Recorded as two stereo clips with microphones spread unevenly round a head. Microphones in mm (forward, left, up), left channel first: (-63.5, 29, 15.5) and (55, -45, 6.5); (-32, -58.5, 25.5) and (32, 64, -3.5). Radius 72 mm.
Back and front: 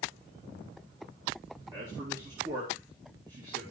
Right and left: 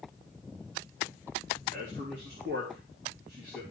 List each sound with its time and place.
1.7 s a man speaking: 30° left, 3.5 m